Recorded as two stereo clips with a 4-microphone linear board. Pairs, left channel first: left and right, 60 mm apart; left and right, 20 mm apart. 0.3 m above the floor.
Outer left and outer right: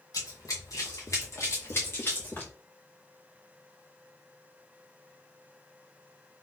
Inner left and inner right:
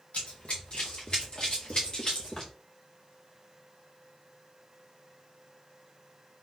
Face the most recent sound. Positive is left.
turn(degrees=30)  # may be behind; listen again after turning